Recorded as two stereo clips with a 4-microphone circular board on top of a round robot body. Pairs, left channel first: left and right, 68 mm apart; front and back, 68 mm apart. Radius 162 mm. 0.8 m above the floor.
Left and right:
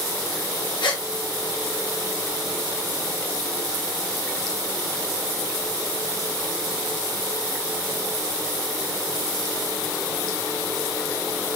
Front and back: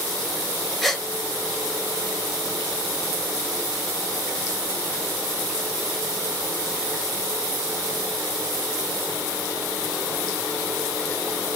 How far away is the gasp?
About 3 m.